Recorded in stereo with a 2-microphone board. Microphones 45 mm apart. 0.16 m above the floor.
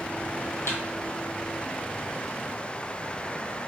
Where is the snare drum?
85° left, 0.9 m.